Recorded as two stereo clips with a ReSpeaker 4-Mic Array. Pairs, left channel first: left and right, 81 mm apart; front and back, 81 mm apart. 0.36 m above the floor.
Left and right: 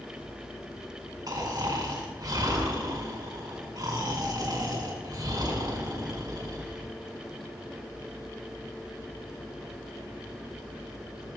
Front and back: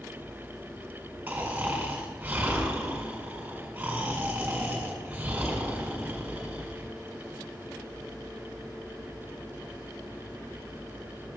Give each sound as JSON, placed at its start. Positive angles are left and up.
{"t": 1.3, "sound": "snoring", "azimuth_deg": -110, "distance_m": 4.5}